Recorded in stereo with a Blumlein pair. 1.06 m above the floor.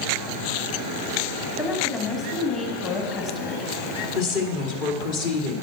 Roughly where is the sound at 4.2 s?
Ahead left.